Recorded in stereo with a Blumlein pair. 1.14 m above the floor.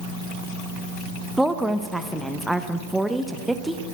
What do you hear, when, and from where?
1.4 s a woman speaking: 5° right, 0.7 m